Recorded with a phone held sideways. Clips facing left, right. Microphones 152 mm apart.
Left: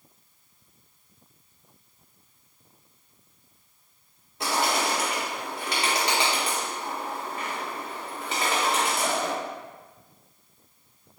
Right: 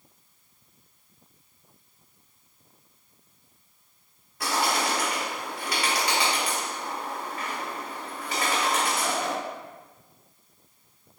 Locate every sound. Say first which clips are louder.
4.4 s a bird: left 1 dB; 25° left (ahead or behind), 1.3 m